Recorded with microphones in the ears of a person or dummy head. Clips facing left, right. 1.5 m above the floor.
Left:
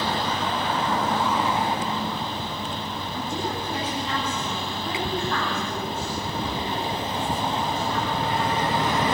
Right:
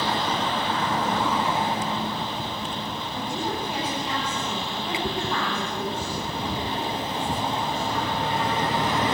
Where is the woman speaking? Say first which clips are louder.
Even; 5° right (ahead or behind), 9 m.